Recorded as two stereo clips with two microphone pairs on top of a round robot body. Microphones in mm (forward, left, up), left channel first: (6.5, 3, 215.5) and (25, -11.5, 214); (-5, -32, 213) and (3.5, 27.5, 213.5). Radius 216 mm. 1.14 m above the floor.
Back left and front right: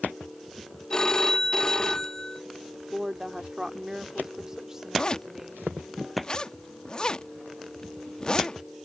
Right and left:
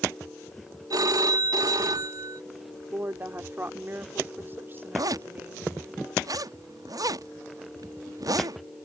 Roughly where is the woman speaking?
Ahead left.